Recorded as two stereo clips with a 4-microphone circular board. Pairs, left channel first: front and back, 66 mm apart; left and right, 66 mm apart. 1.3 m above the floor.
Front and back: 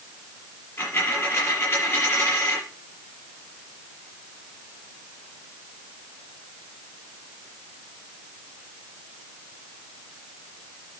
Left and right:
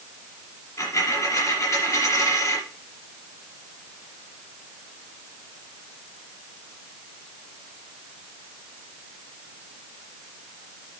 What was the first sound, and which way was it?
A dropped coin, 55° left.